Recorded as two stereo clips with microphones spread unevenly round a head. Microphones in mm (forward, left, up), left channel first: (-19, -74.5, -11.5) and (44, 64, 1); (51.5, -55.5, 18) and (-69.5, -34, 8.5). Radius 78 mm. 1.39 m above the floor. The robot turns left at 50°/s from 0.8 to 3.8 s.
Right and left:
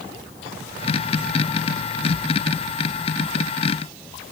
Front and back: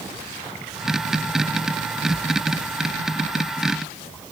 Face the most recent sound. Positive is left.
No sound to turn to.